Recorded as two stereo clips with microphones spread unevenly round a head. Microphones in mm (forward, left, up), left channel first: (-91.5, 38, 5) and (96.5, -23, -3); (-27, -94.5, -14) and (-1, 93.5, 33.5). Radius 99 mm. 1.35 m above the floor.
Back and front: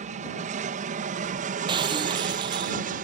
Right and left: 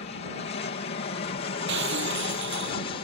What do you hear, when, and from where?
0.0 s an aircraft: 65° right; by 3.0 s 55° right
1.7 s breaking glass: 50° left